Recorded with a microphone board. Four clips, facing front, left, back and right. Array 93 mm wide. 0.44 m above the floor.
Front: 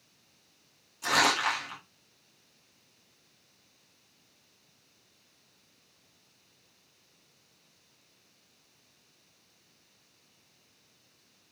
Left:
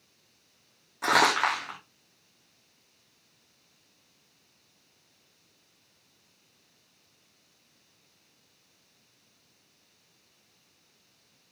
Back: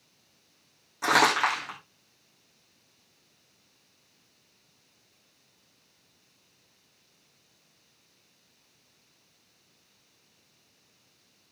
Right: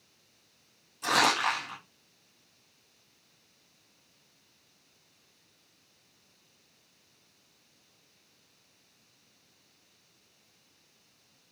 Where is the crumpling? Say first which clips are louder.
Left 3 dB, back 4 dB; 135° left, 9 m.